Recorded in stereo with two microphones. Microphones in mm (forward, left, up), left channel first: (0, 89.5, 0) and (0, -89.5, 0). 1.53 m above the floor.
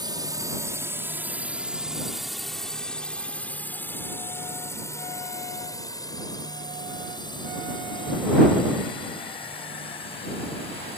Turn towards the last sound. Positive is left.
turn(degrees=30)  # may be behind; listen again after turning